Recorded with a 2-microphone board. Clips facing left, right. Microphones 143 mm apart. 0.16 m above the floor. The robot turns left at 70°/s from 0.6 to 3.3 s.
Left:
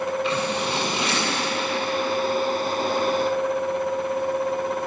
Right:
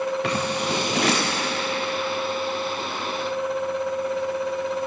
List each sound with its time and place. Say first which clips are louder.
0.2 s scissors: even; 70° right (ahead or behind), 7 m; by 1.4 s 55° right (ahead or behind), 7 m